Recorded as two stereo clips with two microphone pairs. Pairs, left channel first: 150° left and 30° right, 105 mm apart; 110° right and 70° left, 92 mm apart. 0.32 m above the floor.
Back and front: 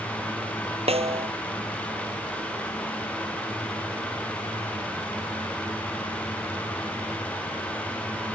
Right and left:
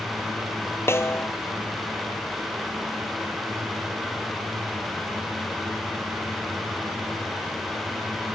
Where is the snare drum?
45° right.